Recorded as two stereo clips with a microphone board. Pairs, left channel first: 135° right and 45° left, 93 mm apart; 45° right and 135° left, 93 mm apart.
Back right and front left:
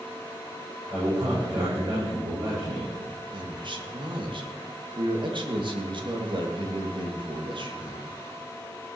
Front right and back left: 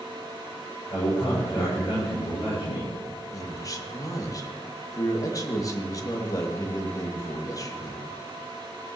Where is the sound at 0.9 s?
10° left, 8 m.